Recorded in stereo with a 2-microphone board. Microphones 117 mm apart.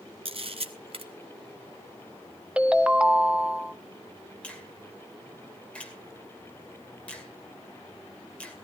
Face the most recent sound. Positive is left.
turn(degrees=10)  # may be behind; listen again after turning